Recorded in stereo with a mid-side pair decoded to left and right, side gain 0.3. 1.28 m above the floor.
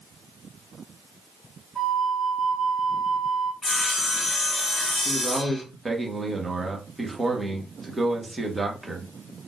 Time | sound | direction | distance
1.8 | a flute | 10° right | 1.6 m
3.6 | sawing | 40° left | 1.1 m
5.0 | a man speaking | 25° right | 1.5 m